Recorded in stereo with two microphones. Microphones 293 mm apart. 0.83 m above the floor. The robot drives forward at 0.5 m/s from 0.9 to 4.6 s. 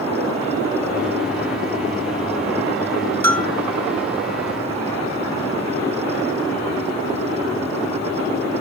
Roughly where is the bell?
Centre.